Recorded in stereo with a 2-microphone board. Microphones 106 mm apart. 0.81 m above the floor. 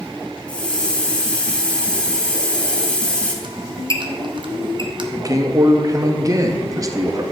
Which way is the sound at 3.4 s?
50° right (ahead or behind).